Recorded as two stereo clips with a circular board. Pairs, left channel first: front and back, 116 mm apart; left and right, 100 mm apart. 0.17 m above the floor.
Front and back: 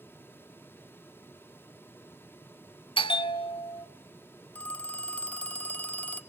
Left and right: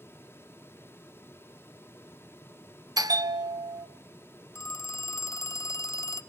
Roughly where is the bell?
Ahead right.